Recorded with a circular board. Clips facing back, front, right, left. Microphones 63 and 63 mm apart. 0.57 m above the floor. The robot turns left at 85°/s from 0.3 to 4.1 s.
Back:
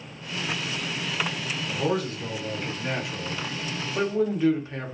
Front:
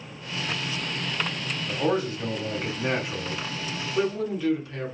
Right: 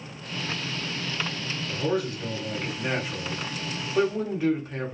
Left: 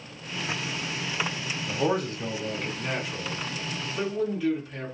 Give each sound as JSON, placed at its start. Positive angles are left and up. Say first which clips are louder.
{"t": 1.7, "sound": "a man speaking", "louder": "front 2 dB, left 1 dB", "azimuth_deg": 80, "distance_m": 1.0}